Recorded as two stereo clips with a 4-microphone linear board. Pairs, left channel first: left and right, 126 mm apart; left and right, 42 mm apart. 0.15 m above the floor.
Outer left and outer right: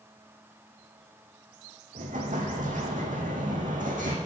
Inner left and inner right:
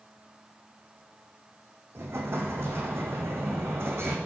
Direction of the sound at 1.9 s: 85° right.